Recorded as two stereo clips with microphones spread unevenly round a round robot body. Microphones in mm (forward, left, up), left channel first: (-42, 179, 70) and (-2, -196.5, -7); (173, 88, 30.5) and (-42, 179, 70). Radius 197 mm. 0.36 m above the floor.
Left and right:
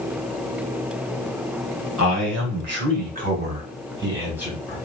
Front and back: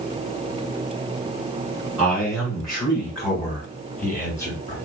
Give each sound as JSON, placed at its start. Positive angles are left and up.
{"t": 2.0, "sound": "a man speaking", "azimuth_deg": -105, "distance_m": 2.0}